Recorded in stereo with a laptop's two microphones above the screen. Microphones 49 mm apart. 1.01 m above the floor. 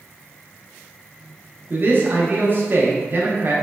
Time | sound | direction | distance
1.7 | a man speaking | 45° right (ahead or behind) | 0.5 m